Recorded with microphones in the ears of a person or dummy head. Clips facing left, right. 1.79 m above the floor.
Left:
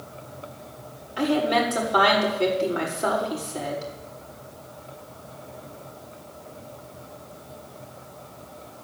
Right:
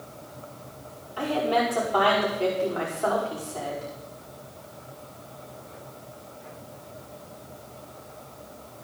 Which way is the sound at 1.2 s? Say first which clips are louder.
Left 2 dB; 30° left (ahead or behind).